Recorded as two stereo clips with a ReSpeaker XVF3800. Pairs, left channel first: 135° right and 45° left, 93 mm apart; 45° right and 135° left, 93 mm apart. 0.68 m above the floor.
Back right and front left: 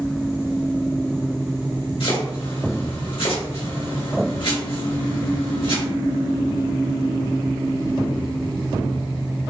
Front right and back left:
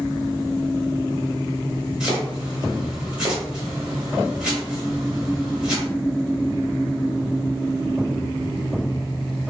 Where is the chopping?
145° right, 1.6 m.